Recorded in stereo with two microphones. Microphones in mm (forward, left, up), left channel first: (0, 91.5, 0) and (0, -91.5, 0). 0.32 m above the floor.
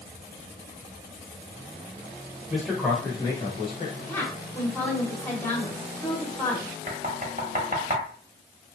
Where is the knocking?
45° right (ahead or behind), 0.8 m.